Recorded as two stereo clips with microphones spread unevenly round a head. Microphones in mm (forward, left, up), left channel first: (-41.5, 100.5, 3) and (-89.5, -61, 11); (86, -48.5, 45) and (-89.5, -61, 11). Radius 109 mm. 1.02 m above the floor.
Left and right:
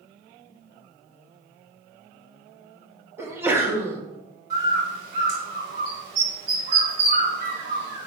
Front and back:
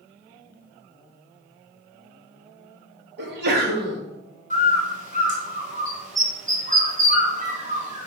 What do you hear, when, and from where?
3.2 s a sneeze: 175° left, 1.6 m
4.5 s a bird: 135° right, 3.5 m